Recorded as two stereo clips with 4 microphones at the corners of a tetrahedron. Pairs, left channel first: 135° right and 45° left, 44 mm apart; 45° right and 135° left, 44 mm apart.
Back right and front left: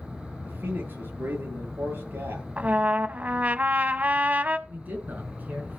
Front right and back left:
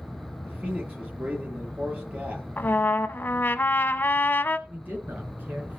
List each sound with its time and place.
0.4 s a man speaking: 75° left, 7.5 m
2.6 s a trumpet: 5° right, 0.6 m
4.7 s a man speaking: 90° left, 5 m